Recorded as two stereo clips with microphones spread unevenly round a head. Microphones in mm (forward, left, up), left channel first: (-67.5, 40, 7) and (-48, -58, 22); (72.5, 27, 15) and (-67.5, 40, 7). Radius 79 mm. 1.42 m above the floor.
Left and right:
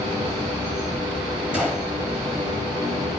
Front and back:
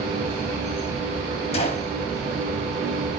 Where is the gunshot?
10° right, 1.1 m.